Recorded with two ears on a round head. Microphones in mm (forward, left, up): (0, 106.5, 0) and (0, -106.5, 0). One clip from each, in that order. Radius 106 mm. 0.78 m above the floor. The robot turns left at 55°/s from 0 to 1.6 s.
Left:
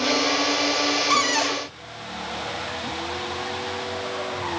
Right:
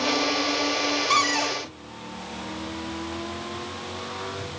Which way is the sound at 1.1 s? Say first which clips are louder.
Left 1 dB; centre (ahead or behind).